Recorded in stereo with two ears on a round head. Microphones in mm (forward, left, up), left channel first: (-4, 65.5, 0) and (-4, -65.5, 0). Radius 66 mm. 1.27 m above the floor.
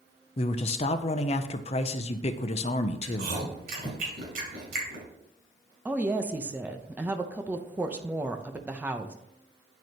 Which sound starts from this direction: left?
A man speaking, at 0.4 s.